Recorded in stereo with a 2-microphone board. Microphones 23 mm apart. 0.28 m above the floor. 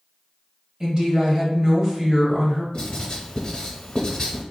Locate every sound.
0.8 s a woman speaking: 30° right (ahead or behind), 1.1 m
2.7 s writing: 35° left (ahead or behind), 1.1 m